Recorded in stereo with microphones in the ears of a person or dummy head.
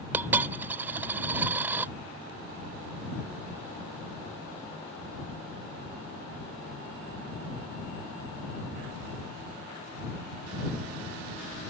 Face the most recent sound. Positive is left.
turn(degrees=-10)  # may be behind; listen again after turning